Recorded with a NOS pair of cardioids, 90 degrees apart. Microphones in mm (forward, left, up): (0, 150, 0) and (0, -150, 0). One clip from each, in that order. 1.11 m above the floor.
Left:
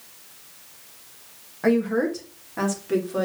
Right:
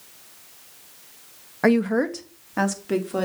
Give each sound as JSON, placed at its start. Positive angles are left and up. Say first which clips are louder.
{"t": 1.6, "sound": "a woman speaking", "louder": "right 1 dB", "azimuth_deg": -55, "distance_m": 1.2}